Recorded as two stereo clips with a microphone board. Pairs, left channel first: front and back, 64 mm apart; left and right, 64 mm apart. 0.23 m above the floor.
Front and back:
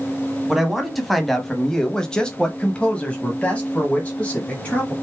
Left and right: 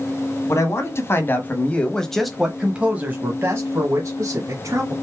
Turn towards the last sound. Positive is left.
turn(degrees=-70)